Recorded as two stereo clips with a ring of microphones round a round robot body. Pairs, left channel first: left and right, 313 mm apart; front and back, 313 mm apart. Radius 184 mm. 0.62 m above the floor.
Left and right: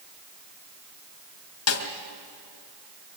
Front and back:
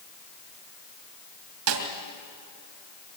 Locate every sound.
1.7 s a snare drum: 135° left, 2.5 m